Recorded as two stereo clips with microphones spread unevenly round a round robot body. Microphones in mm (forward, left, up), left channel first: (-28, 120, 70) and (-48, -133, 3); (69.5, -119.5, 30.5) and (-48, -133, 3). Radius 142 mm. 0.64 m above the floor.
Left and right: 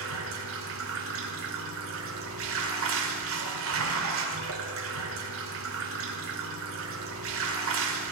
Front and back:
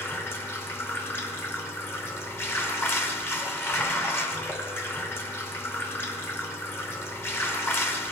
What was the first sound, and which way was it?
Running water, 70° right.